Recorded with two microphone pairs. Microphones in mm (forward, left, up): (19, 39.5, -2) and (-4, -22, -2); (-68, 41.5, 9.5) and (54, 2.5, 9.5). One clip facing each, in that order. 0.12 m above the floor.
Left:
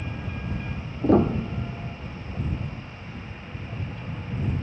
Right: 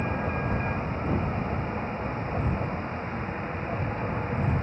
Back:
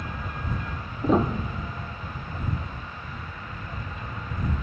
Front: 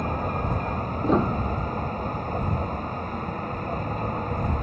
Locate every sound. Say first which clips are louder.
0.0 s a vehicle: right 7 dB, front 8 dB; 60° right
1.0 s a piano: left 12 dB, even; 75° left